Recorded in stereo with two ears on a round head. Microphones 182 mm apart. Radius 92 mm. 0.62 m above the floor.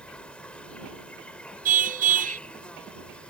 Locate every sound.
0.0 s an insect: 5° left (ahead or behind)
1.6 s a car horn: 45° right (ahead or behind)